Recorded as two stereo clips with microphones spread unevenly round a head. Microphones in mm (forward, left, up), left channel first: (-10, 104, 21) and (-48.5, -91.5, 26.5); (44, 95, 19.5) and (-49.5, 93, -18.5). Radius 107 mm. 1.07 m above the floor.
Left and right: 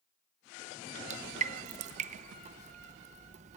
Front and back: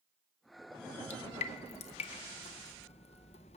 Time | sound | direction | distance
1.1 | dripping | 50° right | 0.5 m